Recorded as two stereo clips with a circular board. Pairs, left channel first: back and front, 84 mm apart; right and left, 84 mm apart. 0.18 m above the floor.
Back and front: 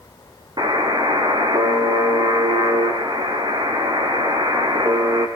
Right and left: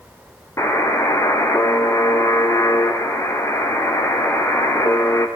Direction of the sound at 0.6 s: 35° right.